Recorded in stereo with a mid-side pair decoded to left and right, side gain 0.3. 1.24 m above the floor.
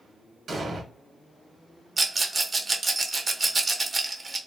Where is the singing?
I don't hear singing.